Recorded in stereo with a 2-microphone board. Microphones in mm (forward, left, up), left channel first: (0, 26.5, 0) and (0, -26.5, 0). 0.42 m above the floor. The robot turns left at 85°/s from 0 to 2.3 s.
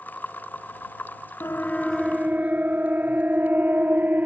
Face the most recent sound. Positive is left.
turn(degrees=-35)  # may be behind; listen again after turning